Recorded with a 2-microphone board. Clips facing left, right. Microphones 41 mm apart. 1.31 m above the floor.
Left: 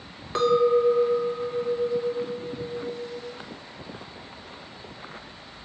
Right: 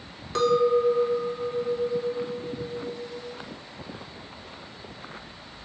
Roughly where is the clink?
Centre.